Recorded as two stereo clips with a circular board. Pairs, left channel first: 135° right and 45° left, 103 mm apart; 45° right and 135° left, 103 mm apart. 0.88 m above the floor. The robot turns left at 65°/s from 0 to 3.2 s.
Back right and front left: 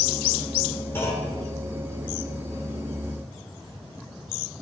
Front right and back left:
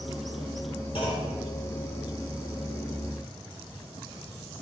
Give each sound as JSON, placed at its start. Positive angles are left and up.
{"t": 0.9, "sound": "a clunk", "azimuth_deg": -65, "distance_m": 3.5}